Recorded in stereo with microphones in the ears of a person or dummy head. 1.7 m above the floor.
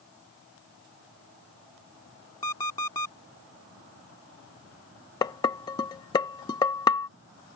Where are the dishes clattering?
20° left (ahead or behind).